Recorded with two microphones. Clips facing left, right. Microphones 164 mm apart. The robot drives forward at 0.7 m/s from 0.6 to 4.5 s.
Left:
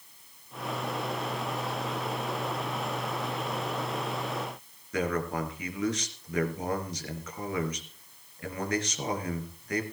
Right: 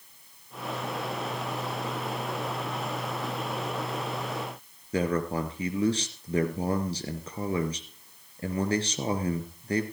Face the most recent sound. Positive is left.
turn(degrees=-30)  # may be behind; listen again after turning